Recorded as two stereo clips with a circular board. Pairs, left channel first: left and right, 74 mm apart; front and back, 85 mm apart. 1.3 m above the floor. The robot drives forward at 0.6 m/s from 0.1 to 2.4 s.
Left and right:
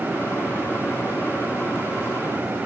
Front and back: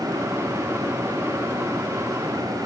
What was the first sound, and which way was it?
Only background noise.